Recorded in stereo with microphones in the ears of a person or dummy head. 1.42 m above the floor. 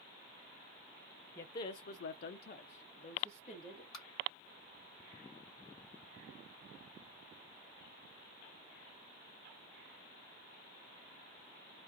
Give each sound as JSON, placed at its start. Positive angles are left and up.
{"t": 1.4, "sound": "a man speaking", "side_deg": 15, "distance_m": 0.6}
{"t": 3.9, "sound": "tapping", "side_deg": 25, "distance_m": 1.5}